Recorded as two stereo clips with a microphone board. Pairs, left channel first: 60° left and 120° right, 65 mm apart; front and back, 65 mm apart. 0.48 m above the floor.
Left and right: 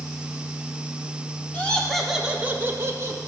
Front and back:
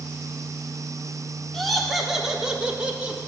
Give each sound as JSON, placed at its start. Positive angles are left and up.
{"t": 1.5, "sound": "laughter", "azimuth_deg": 75, "distance_m": 0.9}